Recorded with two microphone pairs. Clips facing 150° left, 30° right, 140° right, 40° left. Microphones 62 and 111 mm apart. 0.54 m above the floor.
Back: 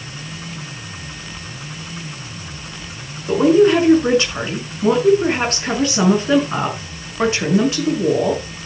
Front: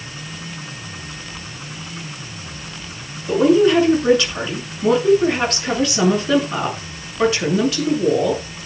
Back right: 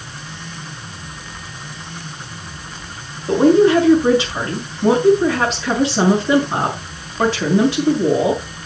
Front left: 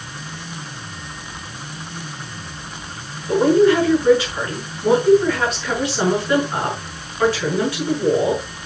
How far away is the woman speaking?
About 7.5 m.